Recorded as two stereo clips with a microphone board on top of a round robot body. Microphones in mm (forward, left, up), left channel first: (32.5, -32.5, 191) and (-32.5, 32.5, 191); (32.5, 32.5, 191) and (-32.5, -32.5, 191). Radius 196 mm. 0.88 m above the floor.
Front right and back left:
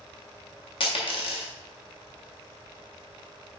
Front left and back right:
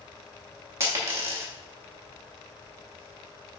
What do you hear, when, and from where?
0.8 s a dropped coin: 75° right, 0.6 m